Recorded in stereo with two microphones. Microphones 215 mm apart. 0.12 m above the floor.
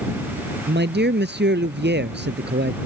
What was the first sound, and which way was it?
A man speaking, 50° right (ahead or behind).